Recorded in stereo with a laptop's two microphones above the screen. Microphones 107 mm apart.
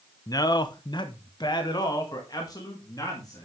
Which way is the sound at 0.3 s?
35° left (ahead or behind).